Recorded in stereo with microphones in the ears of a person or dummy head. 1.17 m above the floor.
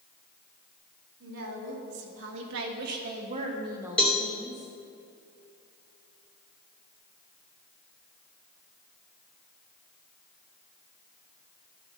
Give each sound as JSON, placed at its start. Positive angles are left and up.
{"t": 1.2, "sound": "a woman speaking", "side_deg": -85, "distance_m": 2.5}
{"t": 4.0, "sound": "a cowbell", "side_deg": 5, "distance_m": 0.7}